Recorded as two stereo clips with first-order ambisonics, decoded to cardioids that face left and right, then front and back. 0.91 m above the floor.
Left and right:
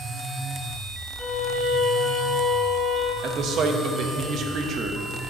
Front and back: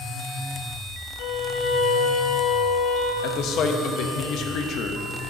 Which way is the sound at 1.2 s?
5° right.